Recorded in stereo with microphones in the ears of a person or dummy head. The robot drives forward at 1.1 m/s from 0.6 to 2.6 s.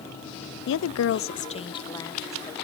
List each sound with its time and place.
0.7 s a woman speaking: 60° left (ahead or behind), 0.5 m; by 2.5 s 15° left (ahead or behind), 1.9 m